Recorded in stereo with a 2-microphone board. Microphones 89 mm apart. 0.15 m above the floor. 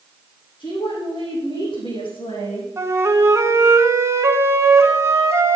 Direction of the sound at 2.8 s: 30° right (ahead or behind).